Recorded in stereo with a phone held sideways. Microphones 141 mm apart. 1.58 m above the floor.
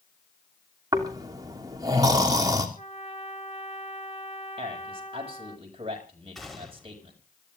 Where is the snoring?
25° right (ahead or behind), 3 m.